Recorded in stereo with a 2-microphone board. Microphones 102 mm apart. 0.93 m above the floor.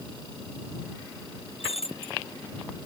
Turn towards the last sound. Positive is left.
turn(degrees=90)